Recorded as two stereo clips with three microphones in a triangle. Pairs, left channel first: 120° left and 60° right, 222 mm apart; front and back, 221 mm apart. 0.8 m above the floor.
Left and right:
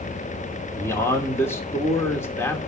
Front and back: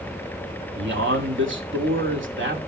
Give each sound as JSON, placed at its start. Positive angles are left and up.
{"t": 0.8, "sound": "a man speaking", "azimuth_deg": -165, "distance_m": 2.5}